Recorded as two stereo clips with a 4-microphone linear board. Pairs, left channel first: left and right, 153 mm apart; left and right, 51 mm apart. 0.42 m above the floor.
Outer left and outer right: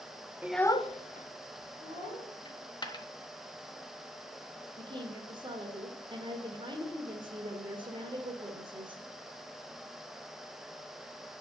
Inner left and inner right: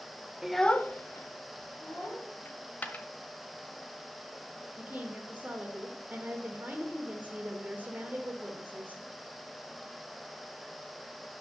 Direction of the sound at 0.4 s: 10° right (ahead or behind).